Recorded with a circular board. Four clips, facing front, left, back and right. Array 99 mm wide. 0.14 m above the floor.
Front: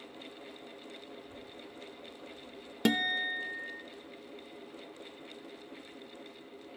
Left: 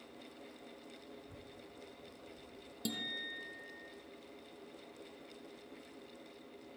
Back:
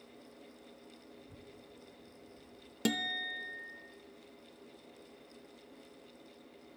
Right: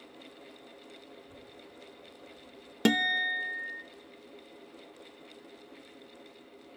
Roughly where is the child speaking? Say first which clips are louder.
Right 3 dB, front 6 dB; behind.